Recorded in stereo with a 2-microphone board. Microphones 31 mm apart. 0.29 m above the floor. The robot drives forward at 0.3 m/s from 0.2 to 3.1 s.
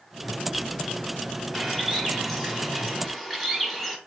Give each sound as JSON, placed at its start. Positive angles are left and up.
{"t": 1.5, "sound": "a bird", "side_deg": 0, "distance_m": 1.1}